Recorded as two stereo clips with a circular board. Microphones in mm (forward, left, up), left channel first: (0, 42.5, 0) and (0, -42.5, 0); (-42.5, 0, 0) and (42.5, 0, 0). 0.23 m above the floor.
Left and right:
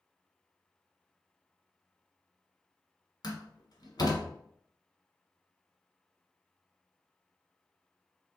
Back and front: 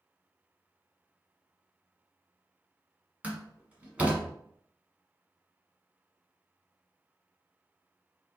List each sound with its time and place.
3.2 s a door slam: 70° left, 1.2 m